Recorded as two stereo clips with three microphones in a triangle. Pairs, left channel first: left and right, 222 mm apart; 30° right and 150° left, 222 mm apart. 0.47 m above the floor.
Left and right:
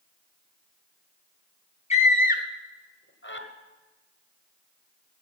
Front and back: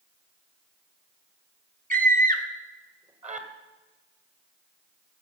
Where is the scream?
130° left, 1.0 m; by 3.5 s 100° left, 1.6 m.